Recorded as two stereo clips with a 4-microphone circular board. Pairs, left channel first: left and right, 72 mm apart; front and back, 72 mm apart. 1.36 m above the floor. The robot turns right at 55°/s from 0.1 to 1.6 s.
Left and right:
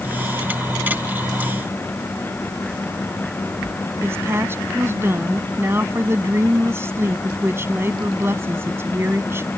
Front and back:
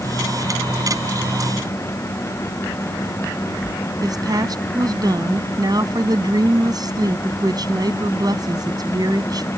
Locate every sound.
4.0 s a woman speaking: 150° right